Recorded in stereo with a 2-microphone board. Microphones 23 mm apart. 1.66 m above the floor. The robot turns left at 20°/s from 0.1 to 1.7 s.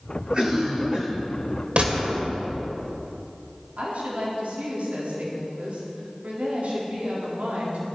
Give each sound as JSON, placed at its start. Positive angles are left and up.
{"t": 0.3, "sound": "a cough", "side_deg": -55, "distance_m": 5.5}
{"t": 1.8, "sound": "a gunshot", "side_deg": -50, "distance_m": 2.5}
{"t": 3.8, "sound": "a woman speaking", "side_deg": -80, "distance_m": 3.5}